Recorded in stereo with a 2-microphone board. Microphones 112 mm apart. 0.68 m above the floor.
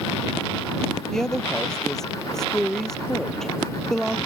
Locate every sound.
1.1 s a woman speaking: 5° left (ahead or behind)